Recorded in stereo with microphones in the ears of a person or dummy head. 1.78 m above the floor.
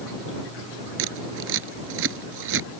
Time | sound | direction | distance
1.0 | scissors | 75° right (ahead or behind) | ?